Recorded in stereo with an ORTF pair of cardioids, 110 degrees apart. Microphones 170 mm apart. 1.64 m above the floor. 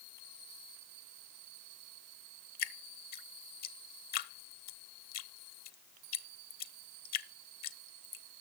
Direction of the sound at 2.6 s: 65° left.